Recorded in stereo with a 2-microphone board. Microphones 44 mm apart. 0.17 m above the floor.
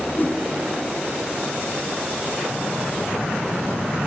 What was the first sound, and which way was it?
A whoosh, 45° left (ahead or behind).